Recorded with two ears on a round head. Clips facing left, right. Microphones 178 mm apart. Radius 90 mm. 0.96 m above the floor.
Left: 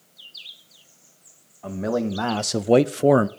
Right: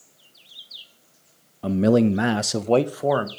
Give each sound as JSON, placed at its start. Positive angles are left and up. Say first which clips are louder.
{"t": 1.6, "sound": "a man speaking", "louder": "right 7 dB", "side_deg": -45, "distance_m": 0.8}